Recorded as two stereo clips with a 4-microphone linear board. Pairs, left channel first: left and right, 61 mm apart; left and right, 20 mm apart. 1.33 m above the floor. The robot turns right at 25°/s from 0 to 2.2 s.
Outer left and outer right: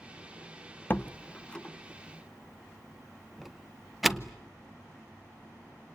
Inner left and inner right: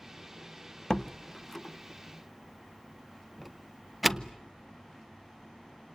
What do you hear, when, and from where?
0.9 s a door slam: 30° left (ahead or behind), 0.7 m; by 4.3 s centre (ahead or behind), 0.7 m